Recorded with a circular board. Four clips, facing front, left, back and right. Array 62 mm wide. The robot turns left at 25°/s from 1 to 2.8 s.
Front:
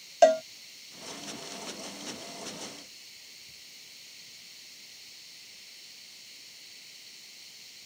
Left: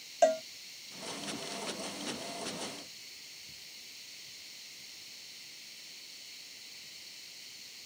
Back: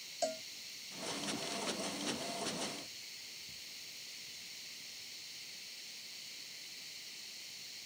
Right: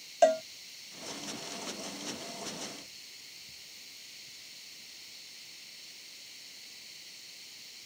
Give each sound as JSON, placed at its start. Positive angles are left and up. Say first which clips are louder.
{"t": 0.2, "sound": "a cowbell", "louder": "right 2 dB, front 19 dB", "azimuth_deg": -10}